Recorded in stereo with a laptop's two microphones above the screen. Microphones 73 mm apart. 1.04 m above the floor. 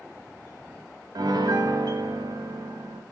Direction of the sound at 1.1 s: 65° right (ahead or behind).